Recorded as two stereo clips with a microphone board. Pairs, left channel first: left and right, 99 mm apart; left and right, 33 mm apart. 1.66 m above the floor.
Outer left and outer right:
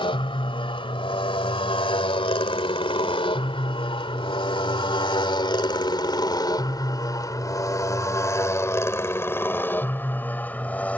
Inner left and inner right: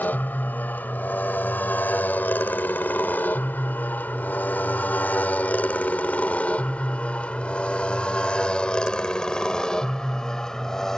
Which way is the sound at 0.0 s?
65° left (ahead or behind).